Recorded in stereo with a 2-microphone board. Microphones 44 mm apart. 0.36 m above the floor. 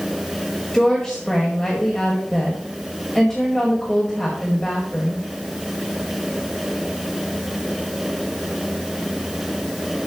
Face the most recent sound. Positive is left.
turn(degrees=15)  # may be behind; listen again after turning